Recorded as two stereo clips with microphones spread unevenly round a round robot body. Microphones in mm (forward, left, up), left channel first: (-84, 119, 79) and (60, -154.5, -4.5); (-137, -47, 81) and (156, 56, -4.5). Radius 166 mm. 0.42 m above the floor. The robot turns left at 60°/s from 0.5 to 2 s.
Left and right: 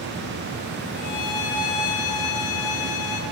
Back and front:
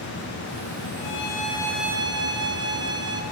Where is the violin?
160° left, 4 m; by 3.2 s 95° left, 4 m.